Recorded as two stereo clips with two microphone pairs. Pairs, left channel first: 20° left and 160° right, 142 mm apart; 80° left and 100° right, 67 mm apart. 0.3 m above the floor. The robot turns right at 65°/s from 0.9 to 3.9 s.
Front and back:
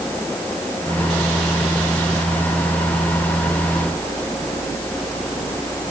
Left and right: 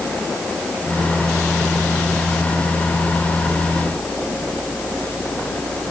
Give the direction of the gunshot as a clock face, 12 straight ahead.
I don't hear a gunshot.